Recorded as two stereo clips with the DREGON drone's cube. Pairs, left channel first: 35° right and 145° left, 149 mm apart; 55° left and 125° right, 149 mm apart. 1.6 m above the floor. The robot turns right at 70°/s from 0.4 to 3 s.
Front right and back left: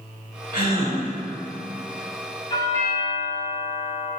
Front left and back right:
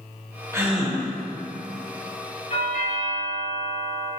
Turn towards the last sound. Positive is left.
turn(degrees=55)